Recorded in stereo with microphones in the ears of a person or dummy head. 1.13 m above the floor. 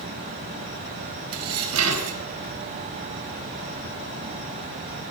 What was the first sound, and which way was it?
Dishes clattering, 90° right.